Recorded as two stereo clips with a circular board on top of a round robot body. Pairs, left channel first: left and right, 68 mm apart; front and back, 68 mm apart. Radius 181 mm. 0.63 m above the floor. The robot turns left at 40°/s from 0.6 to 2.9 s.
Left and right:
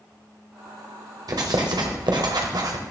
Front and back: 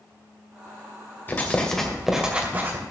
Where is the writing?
65° right, 1.6 m; by 2.8 s 125° right, 1.6 m.